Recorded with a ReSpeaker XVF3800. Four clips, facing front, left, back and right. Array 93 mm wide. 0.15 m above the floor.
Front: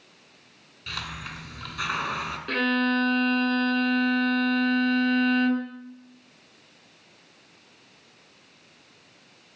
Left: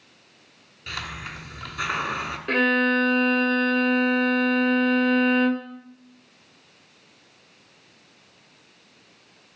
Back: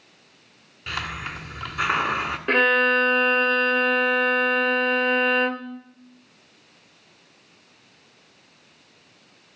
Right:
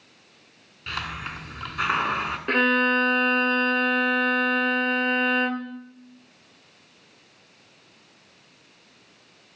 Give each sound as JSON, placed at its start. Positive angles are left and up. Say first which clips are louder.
{"t": 0.9, "sound": "a hiss", "louder": "right 2 dB, back 5 dB", "azimuth_deg": -145, "distance_m": 1.3}
{"t": 2.5, "sound": "a violin", "louder": "even, back 5 dB", "azimuth_deg": -150, "distance_m": 1.1}